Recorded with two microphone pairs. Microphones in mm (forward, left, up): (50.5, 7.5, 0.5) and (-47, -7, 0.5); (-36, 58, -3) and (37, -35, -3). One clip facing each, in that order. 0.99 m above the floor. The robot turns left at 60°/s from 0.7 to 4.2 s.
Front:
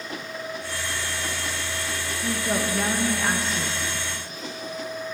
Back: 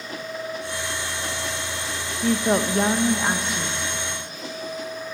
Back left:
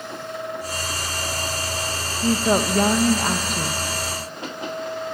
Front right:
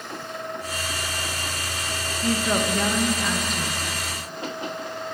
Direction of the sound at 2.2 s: 175° right.